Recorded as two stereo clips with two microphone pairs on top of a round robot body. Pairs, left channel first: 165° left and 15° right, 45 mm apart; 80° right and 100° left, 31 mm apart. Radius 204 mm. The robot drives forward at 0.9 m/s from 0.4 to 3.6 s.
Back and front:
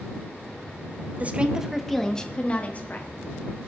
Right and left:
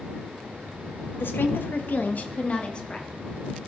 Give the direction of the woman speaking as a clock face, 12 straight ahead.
2 o'clock.